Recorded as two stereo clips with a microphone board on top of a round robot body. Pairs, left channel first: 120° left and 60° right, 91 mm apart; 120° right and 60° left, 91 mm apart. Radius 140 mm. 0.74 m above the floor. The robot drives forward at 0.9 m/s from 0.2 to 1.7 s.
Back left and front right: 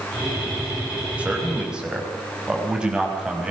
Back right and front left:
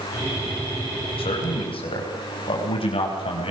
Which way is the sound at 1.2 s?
135° right.